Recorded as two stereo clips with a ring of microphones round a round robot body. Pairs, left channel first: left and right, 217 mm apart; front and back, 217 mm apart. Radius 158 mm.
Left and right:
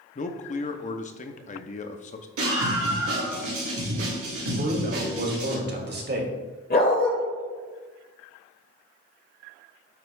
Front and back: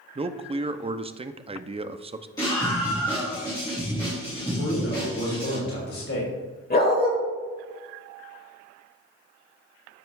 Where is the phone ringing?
I don't hear a phone ringing.